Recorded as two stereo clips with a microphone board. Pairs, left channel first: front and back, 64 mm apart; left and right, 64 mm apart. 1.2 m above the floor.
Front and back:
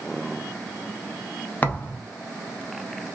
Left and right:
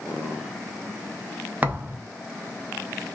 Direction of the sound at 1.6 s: 50° right.